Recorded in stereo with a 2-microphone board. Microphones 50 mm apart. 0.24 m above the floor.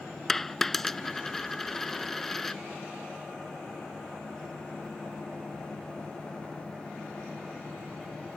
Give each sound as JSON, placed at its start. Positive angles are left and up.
{"t": 0.3, "sound": "a dropped coin", "side_deg": 10}